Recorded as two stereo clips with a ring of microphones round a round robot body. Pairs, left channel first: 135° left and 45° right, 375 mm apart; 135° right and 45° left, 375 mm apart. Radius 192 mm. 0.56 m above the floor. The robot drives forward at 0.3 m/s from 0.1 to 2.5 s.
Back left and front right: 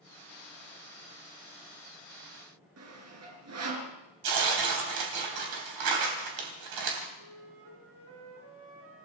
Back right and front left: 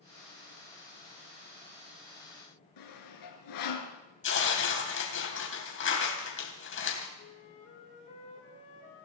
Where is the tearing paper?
75° right, 3.5 m.